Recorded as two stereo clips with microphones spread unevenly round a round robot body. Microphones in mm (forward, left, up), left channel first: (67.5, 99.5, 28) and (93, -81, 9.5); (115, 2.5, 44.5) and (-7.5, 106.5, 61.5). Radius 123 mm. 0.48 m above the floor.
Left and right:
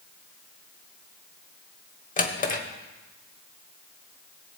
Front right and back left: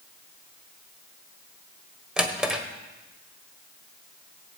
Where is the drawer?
50° left, 1.4 m.